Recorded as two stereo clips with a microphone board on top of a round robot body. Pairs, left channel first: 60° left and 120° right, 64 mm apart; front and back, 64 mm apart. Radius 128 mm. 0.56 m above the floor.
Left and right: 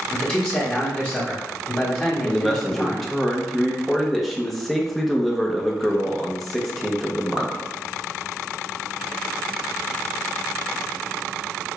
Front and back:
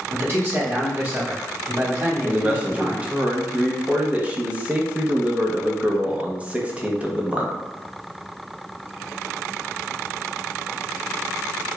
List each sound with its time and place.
0.1 s a man speaking: 130° left, 1.3 m
2.2 s a man speaking: 145° left, 0.9 m